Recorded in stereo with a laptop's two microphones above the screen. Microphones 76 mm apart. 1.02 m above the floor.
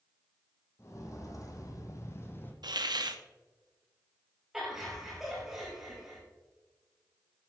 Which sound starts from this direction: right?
A hiss, at 2.6 s.